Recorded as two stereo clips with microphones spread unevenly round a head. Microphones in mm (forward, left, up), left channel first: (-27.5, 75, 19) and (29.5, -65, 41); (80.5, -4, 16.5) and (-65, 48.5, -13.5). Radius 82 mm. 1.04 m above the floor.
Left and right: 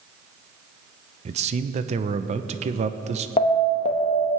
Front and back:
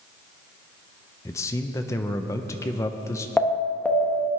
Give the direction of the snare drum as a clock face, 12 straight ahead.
No snare drum in this recording.